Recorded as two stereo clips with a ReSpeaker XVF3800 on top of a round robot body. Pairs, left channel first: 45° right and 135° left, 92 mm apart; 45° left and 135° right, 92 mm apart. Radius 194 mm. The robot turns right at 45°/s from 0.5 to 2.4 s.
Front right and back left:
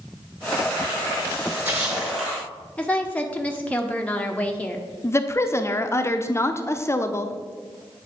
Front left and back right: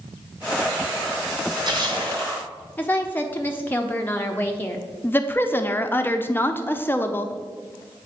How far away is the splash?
About 2.5 m.